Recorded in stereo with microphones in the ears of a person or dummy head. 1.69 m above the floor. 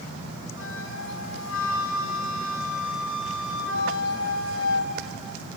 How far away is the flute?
About 2 m.